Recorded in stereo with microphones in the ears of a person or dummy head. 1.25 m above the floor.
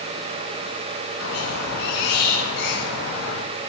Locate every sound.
1.2 s a squeak: 55° left (ahead or behind), 2 m